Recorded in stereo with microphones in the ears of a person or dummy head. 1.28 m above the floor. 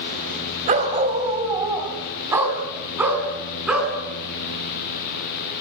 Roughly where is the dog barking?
Right.